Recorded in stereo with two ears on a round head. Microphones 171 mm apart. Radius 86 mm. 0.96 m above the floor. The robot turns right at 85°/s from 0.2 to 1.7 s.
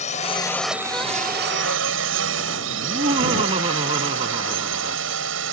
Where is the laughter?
30° right (ahead or behind).